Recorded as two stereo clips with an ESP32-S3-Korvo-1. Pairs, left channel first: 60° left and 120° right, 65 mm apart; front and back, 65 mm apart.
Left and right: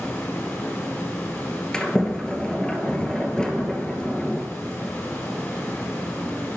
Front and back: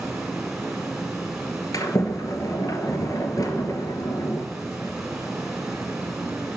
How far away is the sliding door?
About 0.8 m.